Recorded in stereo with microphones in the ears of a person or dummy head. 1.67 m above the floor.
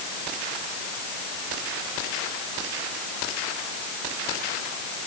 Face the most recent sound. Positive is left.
No sound to turn to.